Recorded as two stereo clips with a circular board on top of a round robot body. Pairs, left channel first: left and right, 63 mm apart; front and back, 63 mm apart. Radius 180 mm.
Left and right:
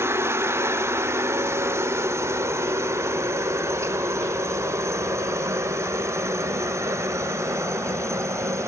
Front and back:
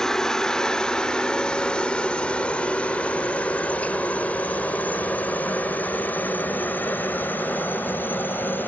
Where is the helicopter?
75° right; by 8.7 s 55° right.